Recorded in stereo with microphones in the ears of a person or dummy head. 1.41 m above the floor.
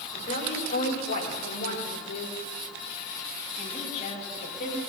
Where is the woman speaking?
60° left (ahead or behind), 6 m.